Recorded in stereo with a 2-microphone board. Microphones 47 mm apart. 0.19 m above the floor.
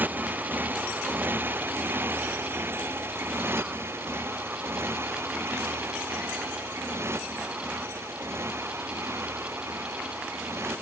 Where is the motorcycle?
45° right (ahead or behind); by 10.8 s 75° right (ahead or behind).